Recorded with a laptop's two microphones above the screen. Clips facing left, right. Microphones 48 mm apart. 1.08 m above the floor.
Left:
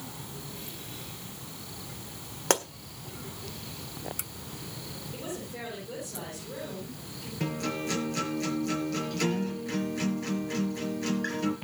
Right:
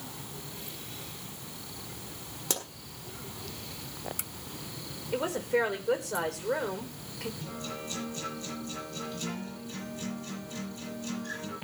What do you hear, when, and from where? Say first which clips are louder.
2.5 s a pop: left 10 dB; 55° left (ahead or behind), 1.7 m
5.1 s a woman speaking: right 12 dB; 85° right, 4.5 m
7.4 s a guitar: left 7 dB; 80° left, 6.5 m